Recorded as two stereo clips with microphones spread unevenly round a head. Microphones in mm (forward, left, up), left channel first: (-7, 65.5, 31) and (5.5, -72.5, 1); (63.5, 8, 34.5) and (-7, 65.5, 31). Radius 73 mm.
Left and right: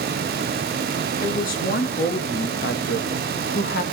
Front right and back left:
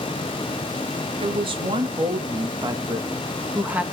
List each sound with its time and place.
1.2 s a woman speaking: 130° left, 2.5 m; by 3.8 s 70° left, 1.7 m